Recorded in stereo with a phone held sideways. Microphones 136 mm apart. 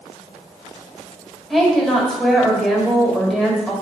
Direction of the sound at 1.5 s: Centre (ahead or behind).